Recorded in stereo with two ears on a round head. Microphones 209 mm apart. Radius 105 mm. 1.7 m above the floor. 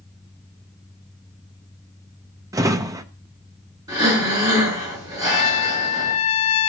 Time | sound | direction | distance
2.5 | a drawer | 15° right (ahead or behind) | 0.8 m
3.9 | breathing | 15° right (ahead or behind) | 7 m
5.2 | a trumpet | 75° left (ahead or behind) | 0.9 m